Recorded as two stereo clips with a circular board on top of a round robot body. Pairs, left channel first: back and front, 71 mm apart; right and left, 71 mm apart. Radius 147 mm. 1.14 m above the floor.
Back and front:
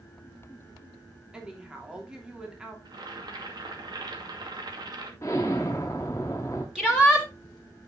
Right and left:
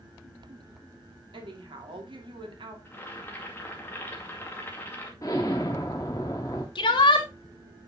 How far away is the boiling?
About 2.5 m.